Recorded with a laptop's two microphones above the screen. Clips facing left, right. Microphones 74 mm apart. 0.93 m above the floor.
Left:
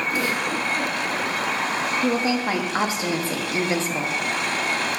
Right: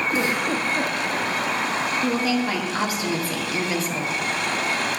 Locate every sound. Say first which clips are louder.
0.1 s a giggle: right 1 dB; 25° right (ahead or behind), 1.4 m
2.0 s a woman speaking: left 1 dB; 25° left (ahead or behind), 1.3 m